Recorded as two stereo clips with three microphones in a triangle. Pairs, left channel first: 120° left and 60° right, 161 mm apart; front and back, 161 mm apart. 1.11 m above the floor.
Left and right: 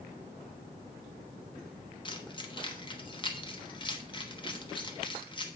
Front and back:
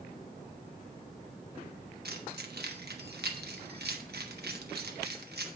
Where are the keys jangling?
Straight behind, 1.1 m.